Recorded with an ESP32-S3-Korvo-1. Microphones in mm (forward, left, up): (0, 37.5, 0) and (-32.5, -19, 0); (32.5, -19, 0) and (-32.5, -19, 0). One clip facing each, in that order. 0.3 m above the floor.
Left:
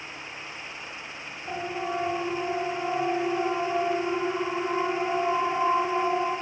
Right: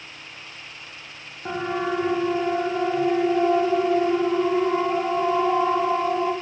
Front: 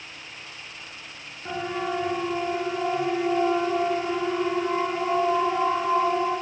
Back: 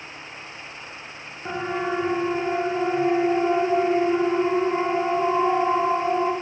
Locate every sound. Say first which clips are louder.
1.4 s a siren: right 6 dB, back 2 dB; 115° right, 2.5 m; by 6.3 s 130° right, 7.5 m